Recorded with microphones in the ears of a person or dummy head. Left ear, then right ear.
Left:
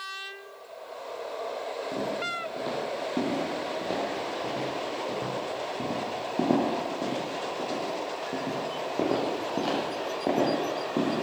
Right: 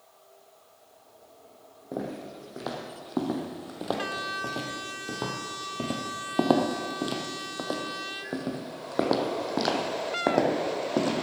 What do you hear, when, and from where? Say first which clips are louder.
1.9 s footsteps: left 3 dB; 20° right (ahead or behind), 3 m; by 11.2 s 45° right (ahead or behind), 4 m